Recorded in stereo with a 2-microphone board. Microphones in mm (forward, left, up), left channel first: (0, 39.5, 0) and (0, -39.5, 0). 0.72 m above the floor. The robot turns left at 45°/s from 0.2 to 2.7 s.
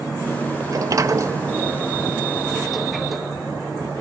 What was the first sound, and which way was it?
A sliding door, 50° right (ahead or behind).